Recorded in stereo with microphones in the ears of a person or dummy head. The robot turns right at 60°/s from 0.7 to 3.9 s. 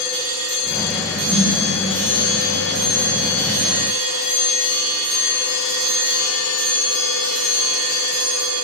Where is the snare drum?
35° right (ahead or behind), 1.5 m; by 1.5 s 40° right (ahead or behind), 1.5 m.